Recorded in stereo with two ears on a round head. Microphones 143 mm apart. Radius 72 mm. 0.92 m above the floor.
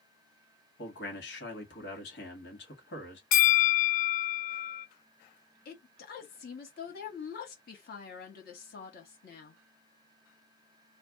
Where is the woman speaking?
60° left (ahead or behind), 1.4 m.